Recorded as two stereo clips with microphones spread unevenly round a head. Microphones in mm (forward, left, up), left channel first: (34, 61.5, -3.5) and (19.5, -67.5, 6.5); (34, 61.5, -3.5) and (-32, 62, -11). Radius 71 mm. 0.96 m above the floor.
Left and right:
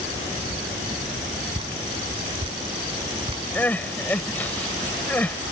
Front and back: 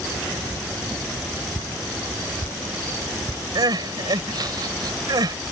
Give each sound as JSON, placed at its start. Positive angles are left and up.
{"t": 1.5, "sound": "dripping", "azimuth_deg": -45}
{"t": 3.5, "sound": "crying", "azimuth_deg": 165}